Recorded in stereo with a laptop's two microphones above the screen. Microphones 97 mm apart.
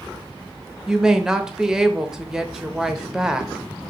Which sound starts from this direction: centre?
A woman speaking, at 0.9 s.